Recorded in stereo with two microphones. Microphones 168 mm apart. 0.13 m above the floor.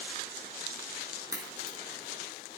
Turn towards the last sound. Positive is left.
turn(degrees=-20)  # may be behind; listen again after turning